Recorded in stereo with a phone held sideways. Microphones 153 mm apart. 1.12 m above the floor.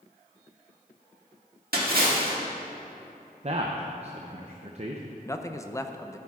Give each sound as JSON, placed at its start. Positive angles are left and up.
{"t": 1.7, "sound": "a splash", "side_deg": -85, "distance_m": 1.8}
{"t": 3.4, "sound": "a man speaking", "side_deg": -45, "distance_m": 0.6}
{"t": 5.2, "sound": "a man speaking", "side_deg": 20, "distance_m": 0.5}